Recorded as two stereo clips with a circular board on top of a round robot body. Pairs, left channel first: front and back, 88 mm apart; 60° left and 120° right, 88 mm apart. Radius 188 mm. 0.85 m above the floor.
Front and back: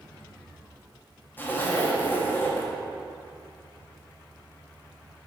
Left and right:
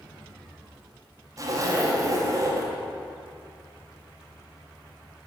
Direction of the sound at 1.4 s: 70° right.